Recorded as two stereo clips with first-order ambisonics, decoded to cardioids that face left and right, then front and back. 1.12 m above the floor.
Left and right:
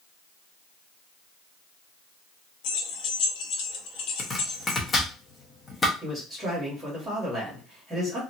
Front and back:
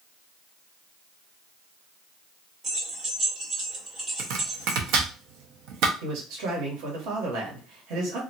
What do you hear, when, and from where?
2.6 s keys jangling: 115° left, 0.8 m
4.2 s chopping: 165° left, 0.7 m
6.0 s a man speaking: 170° right, 1.6 m